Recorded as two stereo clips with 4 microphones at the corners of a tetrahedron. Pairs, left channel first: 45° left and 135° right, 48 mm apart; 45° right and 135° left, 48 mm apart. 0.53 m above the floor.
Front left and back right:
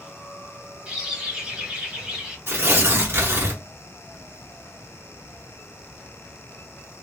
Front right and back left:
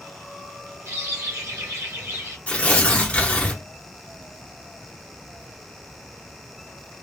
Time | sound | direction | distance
0.9 | a bird | 155° left | 0.9 m
2.5 | tearing paper | 110° right | 0.8 m